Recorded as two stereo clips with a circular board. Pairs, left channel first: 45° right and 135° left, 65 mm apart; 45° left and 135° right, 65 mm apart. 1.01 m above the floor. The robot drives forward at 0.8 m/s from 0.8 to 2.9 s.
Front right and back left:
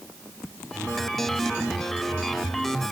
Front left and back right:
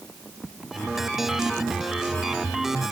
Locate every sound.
Only background noise.